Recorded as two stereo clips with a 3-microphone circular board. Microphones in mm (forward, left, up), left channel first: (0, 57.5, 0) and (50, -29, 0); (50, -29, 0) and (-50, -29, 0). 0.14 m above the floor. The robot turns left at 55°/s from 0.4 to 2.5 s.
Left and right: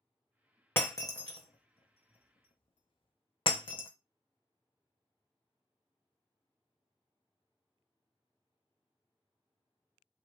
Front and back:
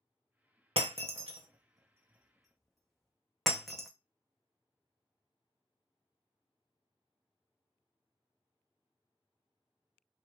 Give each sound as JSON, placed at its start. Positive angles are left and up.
{"t": 0.8, "sound": "breaking glass", "azimuth_deg": -175, "distance_m": 0.6}